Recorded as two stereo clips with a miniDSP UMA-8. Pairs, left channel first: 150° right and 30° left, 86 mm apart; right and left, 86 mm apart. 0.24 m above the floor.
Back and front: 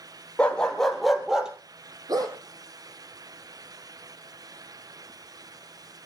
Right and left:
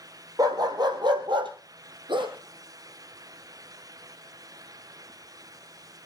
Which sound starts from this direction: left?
A dog barking, at 2.1 s.